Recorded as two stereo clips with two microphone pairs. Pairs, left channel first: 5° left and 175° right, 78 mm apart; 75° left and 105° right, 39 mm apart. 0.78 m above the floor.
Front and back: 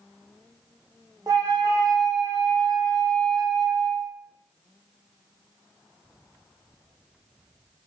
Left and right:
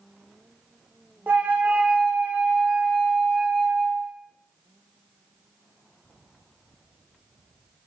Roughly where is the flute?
Behind right.